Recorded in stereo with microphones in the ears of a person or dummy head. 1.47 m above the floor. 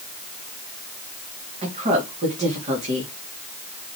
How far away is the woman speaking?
About 3.5 m.